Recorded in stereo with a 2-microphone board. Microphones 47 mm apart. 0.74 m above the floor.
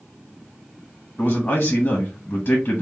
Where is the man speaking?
30° left (ahead or behind), 1.1 m.